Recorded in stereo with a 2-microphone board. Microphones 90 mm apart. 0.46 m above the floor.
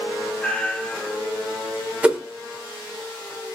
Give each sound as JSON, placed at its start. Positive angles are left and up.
{"t": 0.4, "sound": "a cat meowing", "side_deg": 10, "distance_m": 1.0}
{"t": 2.0, "sound": "a whoosh", "side_deg": -15, "distance_m": 0.7}